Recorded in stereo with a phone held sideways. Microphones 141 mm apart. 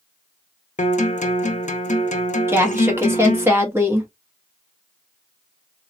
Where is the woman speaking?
15° right (ahead or behind), 1.1 m.